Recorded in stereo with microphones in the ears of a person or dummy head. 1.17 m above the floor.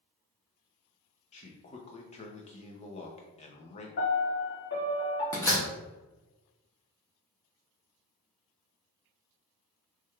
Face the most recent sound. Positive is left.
turn(degrees=15)  # may be behind; listen again after turning